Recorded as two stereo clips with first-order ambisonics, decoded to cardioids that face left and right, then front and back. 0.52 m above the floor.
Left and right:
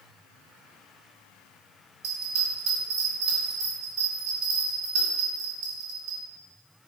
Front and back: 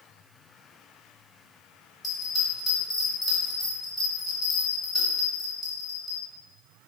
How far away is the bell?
About 1.7 m.